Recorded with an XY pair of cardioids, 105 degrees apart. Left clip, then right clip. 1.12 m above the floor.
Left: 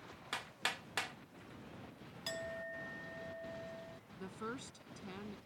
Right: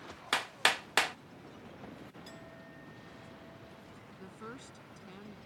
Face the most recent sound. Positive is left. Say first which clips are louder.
# left 3 dB
turn(degrees=20)